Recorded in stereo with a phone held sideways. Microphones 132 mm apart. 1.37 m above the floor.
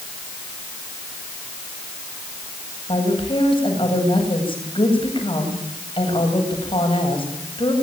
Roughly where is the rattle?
No rattle in this recording.